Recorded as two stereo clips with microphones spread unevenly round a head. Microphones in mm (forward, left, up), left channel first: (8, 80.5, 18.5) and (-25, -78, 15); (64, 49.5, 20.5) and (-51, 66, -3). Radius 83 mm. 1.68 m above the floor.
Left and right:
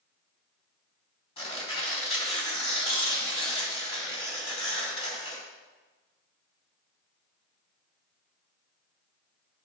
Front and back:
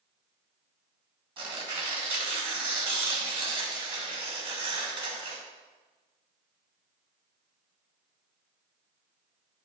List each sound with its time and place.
1.4 s tearing paper: 130° left, 2.5 m